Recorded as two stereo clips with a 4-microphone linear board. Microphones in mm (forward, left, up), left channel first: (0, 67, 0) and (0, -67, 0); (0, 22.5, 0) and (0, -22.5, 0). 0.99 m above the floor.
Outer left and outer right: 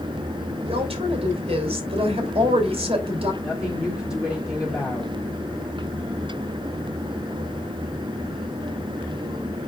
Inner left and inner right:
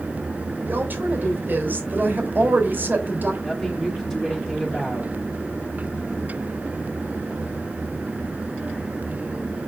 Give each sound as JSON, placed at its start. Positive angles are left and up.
{"t": 0.7, "sound": "a woman speaking", "side_deg": -50, "distance_m": 3.5}
{"t": 3.4, "sound": "a woman speaking", "side_deg": -5, "distance_m": 2.5}